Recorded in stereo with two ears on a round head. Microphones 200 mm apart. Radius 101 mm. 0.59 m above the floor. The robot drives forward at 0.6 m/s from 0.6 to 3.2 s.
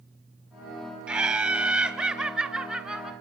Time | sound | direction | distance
1.1 | laughter | 5° right (ahead or behind) | 1.5 m